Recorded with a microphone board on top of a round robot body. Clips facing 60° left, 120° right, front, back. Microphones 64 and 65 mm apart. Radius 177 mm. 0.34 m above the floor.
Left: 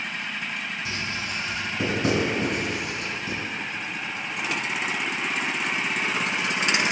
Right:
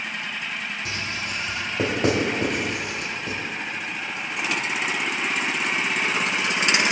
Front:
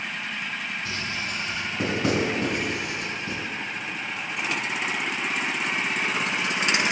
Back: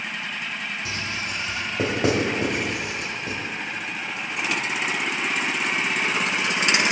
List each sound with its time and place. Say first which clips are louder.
0.8 s writing: right 1 dB, back 1 dB; 155° right, 2 m